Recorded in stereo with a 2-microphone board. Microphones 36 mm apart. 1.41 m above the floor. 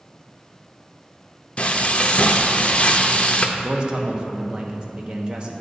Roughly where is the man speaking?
Right.